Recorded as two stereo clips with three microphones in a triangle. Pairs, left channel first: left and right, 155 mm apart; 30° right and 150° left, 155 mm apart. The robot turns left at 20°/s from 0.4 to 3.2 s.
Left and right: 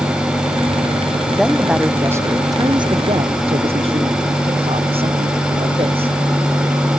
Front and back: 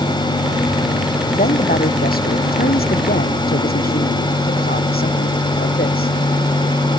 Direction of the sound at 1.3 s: Straight ahead.